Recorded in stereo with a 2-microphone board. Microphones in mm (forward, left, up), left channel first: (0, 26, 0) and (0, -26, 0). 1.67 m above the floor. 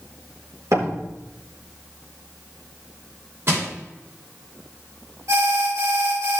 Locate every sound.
0.7 s a door slam: 75° right (ahead or behind), 4.5 m
3.5 s crushing: 50° right (ahead or behind), 6.5 m
5.3 s an alarm: 75° right (ahead or behind), 3 m